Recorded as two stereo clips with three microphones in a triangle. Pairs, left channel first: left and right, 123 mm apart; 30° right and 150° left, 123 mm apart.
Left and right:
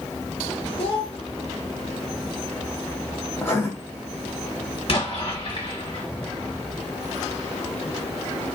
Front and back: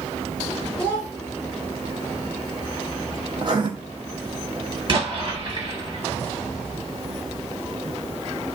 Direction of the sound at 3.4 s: 145° left.